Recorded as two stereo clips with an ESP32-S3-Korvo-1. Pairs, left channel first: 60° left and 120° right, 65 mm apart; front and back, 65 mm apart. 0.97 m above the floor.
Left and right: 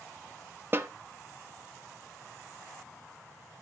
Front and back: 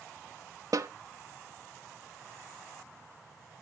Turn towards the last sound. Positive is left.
turn(degrees=-170)